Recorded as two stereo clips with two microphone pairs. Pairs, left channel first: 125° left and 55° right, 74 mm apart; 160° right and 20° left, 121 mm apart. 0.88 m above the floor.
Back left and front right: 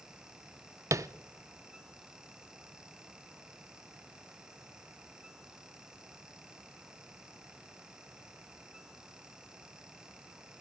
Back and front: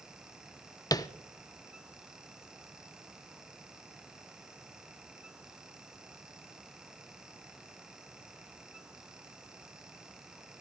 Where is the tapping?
100° right, 0.5 m.